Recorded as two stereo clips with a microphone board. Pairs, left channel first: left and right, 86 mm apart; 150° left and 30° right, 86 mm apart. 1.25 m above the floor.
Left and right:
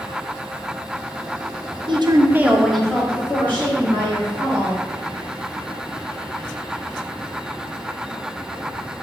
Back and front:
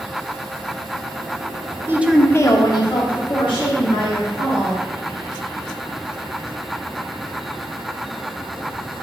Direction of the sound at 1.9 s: 85° right.